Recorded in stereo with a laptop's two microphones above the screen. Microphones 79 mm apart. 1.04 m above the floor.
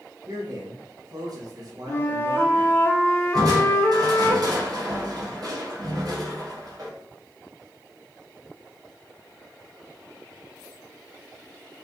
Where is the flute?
30° left (ahead or behind), 0.6 m.